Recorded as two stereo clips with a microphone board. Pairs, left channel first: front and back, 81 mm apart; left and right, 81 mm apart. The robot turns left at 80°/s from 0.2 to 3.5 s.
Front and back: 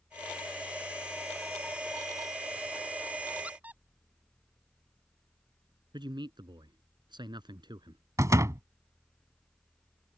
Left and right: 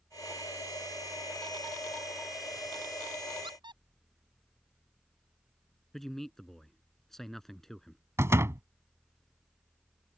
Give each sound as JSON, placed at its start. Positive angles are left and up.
{"t": 3.4, "sound": "a squeak", "azimuth_deg": -100}
{"t": 5.9, "sound": "a man speaking", "azimuth_deg": 175}
{"t": 8.2, "sound": "a door slam", "azimuth_deg": -140}